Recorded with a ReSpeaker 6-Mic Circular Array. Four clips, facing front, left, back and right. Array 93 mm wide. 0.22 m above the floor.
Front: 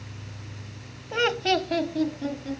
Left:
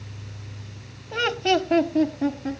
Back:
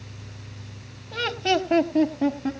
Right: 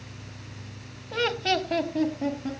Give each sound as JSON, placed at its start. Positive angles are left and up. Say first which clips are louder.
{"t": 1.1, "sound": "laughter", "louder": "left 4 dB, even", "azimuth_deg": 25, "distance_m": 1.0}